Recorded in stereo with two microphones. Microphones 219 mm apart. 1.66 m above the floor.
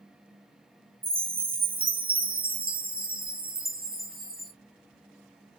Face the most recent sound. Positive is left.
turn(degrees=-45)  # may be behind; listen again after turning